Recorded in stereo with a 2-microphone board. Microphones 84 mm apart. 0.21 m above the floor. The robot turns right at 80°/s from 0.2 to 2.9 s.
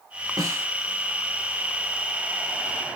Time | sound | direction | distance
0.4 | a snare drum | 40° right (ahead or behind) | 1.4 m